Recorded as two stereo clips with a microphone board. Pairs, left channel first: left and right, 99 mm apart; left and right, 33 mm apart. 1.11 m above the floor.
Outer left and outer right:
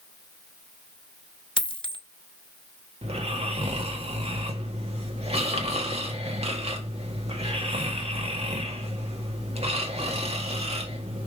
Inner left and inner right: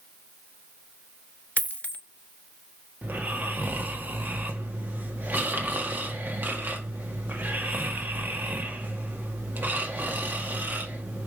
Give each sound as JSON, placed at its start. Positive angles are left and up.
{"t": 1.6, "sound": "a dropped coin", "side_deg": 55, "distance_m": 0.8}
{"t": 3.0, "sound": "snoring", "side_deg": -75, "distance_m": 1.9}